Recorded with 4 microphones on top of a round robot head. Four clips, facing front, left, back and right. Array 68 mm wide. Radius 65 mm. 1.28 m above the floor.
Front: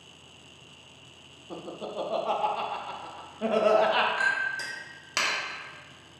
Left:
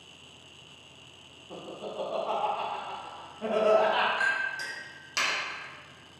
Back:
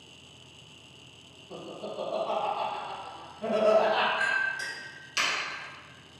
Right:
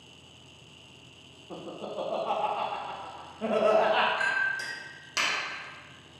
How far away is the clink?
About 0.7 m.